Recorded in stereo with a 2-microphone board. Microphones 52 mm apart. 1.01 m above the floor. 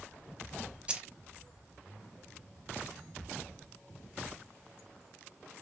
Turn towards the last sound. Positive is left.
turn(degrees=-20)  # may be behind; listen again after turning